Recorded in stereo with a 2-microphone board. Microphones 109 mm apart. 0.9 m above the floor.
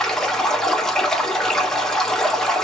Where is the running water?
5° left (ahead or behind), 1.2 m.